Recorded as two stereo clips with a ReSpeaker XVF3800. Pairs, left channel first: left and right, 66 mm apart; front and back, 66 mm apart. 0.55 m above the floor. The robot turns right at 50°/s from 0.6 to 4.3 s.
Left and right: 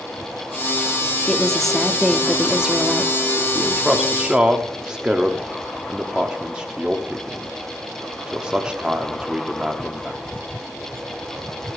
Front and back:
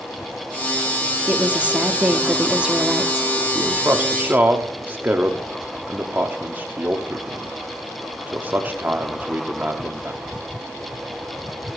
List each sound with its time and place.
1.3 s a woman speaking: 150° left, 0.6 m; by 3.3 s 110° right, 0.6 m
3.5 s a man speaking: 170° left, 0.7 m; by 10.2 s 150° right, 0.7 m